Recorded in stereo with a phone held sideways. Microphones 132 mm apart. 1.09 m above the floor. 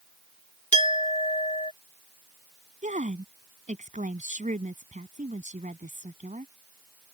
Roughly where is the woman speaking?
Right.